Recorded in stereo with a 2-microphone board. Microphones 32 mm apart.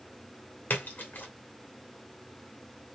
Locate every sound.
0.7 s a splash: 70° left (ahead or behind), 1.6 m